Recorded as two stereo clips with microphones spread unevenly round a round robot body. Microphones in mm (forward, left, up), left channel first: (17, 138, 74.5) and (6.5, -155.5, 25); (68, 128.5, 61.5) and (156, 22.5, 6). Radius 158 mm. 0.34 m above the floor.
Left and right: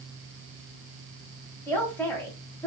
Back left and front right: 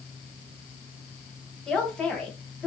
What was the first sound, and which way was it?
A man speaking, 5° right.